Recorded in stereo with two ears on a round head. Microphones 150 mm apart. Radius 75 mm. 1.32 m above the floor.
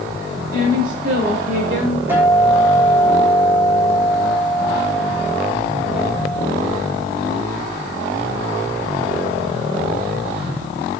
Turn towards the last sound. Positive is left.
turn(degrees=-15)  # may be behind; listen again after turning